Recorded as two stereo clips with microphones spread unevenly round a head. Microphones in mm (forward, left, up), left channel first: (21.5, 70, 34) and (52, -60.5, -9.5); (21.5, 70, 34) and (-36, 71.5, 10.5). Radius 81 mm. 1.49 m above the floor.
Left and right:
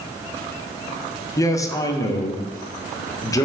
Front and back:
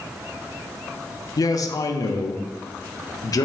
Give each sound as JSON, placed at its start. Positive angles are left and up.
{"t": 1.4, "sound": "a man speaking", "azimuth_deg": 30, "distance_m": 0.6}